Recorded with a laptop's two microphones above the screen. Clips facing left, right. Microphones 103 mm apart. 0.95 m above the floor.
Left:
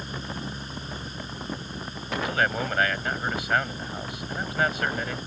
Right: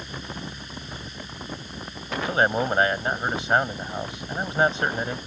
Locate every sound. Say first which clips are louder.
0.0 s a fan: left 1 dB; 35° left (ahead or behind)
2.2 s a man speaking: right 4 dB; 25° right (ahead or behind)